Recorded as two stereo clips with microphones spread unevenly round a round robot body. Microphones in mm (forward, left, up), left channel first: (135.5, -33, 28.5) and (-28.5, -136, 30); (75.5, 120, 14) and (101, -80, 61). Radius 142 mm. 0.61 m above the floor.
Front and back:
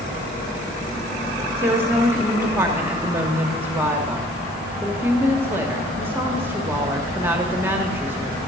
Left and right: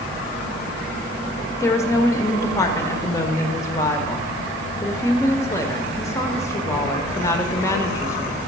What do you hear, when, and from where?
1.6 s a woman speaking: 140° left, 0.9 m